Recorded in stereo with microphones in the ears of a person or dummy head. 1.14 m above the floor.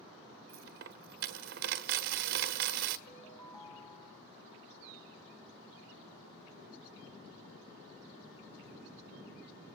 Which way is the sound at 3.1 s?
25° left (ahead or behind).